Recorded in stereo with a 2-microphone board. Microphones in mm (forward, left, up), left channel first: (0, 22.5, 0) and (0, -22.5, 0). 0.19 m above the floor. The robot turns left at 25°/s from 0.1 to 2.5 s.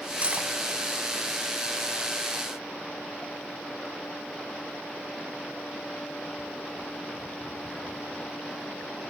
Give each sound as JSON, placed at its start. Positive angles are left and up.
{"t": 0.2, "sound": "cutlery clinking", "side_deg": -35, "distance_m": 1.0}